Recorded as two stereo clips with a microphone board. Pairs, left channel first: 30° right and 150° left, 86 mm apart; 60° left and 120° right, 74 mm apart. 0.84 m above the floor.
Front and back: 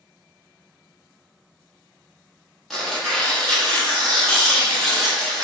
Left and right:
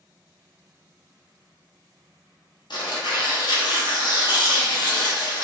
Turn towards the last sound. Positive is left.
turn(degrees=55)